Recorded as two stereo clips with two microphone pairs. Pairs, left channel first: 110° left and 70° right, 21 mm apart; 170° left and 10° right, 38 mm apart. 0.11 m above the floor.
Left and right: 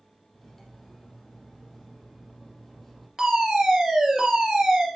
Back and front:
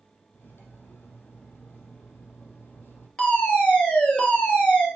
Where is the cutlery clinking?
175° right, 2.5 m.